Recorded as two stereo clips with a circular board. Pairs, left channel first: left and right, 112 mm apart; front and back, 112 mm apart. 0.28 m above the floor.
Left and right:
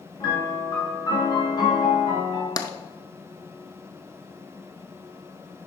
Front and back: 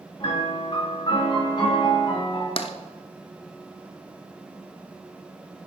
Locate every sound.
0.2 s a piano: 45° left, 3 m
2.6 s tapping: 35° left, 0.7 m